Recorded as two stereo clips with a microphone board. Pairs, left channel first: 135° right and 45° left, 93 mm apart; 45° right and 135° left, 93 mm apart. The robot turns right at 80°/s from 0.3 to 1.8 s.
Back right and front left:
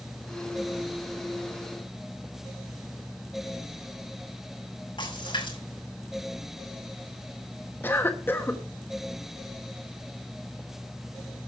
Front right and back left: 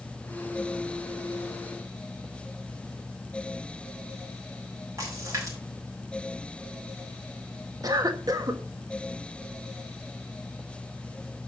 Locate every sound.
5.0 s a splash: 170° right, 6 m
7.8 s a cough: 165° left, 1.4 m